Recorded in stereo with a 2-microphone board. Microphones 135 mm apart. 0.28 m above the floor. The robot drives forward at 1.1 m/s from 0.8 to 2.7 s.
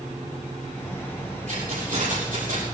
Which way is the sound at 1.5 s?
80° right.